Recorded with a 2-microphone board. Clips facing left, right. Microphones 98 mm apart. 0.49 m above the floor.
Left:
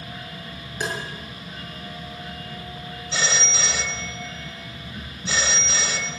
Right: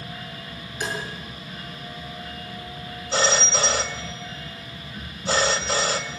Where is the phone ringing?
50° right (ahead or behind), 1.7 m.